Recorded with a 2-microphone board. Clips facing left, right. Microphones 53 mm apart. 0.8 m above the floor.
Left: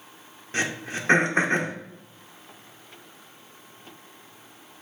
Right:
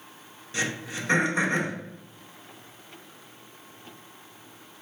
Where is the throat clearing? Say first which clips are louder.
Left 2 dB; 40° left (ahead or behind), 0.7 m.